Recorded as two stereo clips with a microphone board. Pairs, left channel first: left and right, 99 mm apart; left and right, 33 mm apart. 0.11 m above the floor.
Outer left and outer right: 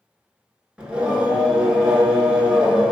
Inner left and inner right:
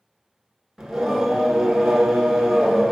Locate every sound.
0.8 s singing: 10° right (ahead or behind), 1.3 m